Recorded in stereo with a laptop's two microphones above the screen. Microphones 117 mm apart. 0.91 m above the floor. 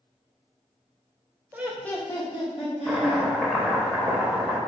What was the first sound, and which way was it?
Laughter, 20° right (ahead or behind).